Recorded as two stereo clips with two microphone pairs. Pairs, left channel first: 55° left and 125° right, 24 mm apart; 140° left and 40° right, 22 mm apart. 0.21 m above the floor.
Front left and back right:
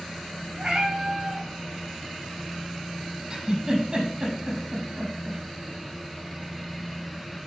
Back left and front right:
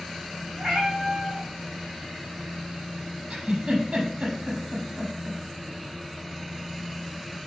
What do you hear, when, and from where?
0.6 s a cat meowing: 65° right, 3.5 m
3.3 s a giggle: 70° right, 5.5 m